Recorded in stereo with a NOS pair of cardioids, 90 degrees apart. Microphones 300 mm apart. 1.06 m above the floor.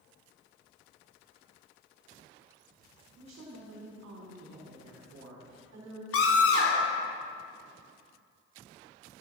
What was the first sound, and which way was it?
A woman speaking, 65° right.